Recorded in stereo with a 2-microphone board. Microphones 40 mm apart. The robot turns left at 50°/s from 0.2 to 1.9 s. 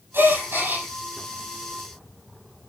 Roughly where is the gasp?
Right.